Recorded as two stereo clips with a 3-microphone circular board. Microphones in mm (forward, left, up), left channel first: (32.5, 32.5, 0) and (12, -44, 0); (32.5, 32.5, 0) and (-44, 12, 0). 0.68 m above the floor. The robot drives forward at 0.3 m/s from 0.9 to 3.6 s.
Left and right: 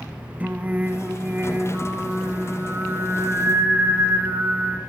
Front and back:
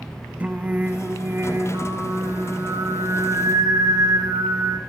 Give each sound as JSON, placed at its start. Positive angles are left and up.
{"t": 0.4, "sound": "singing", "azimuth_deg": -130, "distance_m": 0.8}